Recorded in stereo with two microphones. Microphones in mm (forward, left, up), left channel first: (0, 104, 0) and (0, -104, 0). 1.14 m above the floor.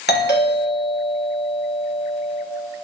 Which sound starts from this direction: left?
A doorbell, at 0.1 s.